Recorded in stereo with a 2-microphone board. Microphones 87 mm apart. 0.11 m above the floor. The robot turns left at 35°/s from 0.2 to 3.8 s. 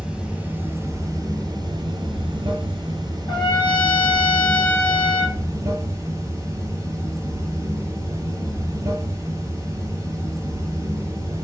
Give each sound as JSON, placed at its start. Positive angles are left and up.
{"t": 0.0, "sound": "running water", "azimuth_deg": -15, "distance_m": 0.8}
{"t": 3.3, "sound": "a trumpet", "side_deg": 60, "distance_m": 1.1}